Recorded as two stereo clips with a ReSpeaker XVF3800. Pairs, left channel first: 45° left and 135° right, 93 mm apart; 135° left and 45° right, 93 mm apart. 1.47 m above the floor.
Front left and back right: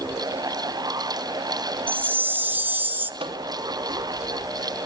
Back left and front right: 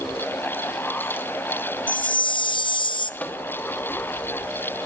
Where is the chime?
155° left, 0.9 m.